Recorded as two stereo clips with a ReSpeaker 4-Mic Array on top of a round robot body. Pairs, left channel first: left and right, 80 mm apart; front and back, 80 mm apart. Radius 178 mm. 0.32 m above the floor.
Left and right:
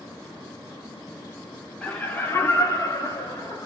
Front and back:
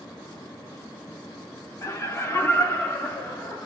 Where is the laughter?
25° left, 1.4 m; by 3.7 s 75° left, 1.7 m.